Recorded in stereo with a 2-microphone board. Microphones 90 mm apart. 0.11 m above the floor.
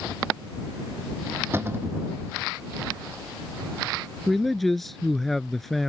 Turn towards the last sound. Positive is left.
turn(degrees=0)  # may be behind; listen again after turning